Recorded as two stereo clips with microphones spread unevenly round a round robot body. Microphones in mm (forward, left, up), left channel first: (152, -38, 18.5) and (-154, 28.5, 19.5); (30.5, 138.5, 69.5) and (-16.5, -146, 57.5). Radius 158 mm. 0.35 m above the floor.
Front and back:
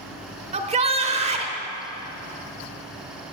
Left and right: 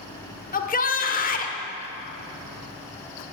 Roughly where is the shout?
Behind left.